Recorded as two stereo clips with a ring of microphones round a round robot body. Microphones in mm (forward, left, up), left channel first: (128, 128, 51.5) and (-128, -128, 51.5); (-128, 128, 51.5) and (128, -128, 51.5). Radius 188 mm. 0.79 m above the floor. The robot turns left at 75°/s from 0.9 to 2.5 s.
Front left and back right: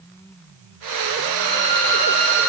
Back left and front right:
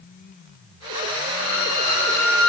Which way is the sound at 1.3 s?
150° left.